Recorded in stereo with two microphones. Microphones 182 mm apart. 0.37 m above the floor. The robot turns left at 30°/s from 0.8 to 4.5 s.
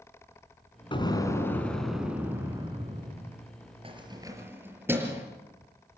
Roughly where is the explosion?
Ahead left.